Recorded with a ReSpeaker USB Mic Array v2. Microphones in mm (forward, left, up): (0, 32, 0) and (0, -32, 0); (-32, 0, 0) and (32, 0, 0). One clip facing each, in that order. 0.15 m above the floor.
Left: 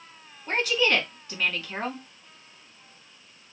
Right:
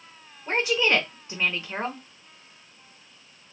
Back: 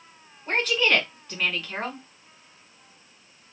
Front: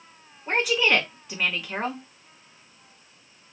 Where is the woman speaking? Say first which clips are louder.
Right 1 dB, front 1 dB; 70° right, 1.2 m.